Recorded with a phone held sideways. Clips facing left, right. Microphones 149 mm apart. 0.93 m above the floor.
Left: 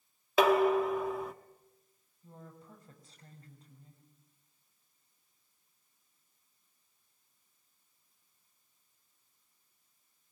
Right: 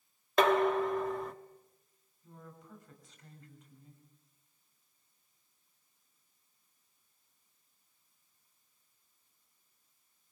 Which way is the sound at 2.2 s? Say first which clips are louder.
Left 1 dB; 35° left (ahead or behind).